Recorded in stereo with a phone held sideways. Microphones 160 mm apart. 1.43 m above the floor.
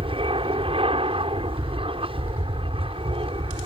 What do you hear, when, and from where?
0.0 s an aircraft: 35° right (ahead or behind)